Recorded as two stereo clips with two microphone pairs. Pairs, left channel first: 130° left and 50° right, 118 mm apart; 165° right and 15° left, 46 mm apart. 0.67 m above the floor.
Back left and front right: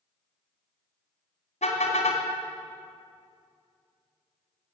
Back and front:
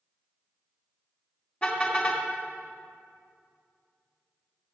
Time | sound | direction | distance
1.6 | a car horn | 135° left | 2.5 m